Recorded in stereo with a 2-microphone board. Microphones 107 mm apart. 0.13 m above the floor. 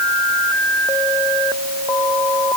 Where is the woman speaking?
No woman speaking in this recording.